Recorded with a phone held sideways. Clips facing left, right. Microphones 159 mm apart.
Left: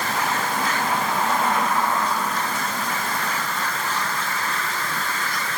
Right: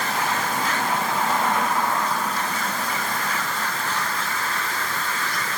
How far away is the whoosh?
No whoosh in this recording.